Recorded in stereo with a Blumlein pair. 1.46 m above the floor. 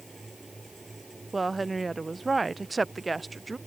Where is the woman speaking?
10° right.